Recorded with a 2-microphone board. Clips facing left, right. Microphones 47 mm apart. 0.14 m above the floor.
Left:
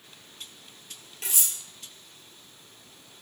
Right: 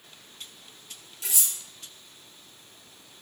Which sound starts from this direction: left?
Cutlery clinking, at 1.2 s.